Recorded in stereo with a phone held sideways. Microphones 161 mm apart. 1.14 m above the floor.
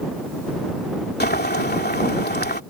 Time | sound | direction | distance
1.2 | boiling | 85° left | ?